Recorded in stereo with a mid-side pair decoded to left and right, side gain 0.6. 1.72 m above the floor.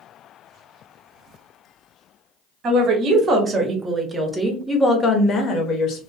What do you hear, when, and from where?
2.6 s a woman speaking: 40° right, 1.3 m; by 6.0 s 60° left, 1.1 m